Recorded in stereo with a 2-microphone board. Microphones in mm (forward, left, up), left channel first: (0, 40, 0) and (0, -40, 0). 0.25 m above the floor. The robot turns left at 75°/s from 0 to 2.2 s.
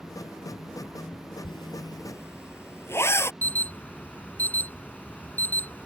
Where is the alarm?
25° left (ahead or behind).